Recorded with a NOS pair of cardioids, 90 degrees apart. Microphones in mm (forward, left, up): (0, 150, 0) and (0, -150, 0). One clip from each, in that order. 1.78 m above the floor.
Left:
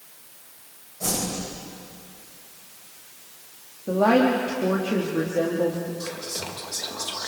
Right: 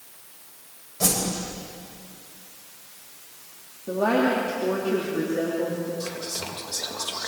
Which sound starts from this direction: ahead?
Whispering, at 6.0 s.